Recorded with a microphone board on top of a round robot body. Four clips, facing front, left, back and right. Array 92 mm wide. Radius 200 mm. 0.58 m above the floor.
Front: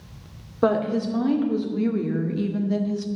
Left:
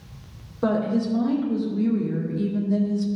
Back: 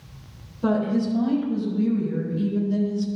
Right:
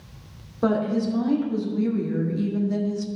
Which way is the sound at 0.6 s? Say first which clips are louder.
Even, front 1 dB; 5° right.